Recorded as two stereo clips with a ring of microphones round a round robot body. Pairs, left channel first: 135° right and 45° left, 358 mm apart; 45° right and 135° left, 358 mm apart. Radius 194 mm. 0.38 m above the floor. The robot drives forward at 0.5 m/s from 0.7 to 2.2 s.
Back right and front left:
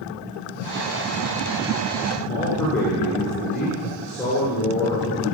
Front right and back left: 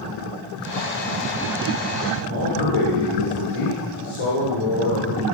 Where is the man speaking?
50° right, 6.5 m.